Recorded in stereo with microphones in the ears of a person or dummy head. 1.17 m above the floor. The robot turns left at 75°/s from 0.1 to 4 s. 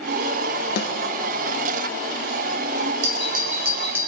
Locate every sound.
0.8 s a snare drum: 55° left (ahead or behind), 1.1 m; by 0.9 s 45° left (ahead or behind), 1.1 m
3.0 s a doorbell: 95° right, 1.6 m; by 4.1 s 165° right, 1.6 m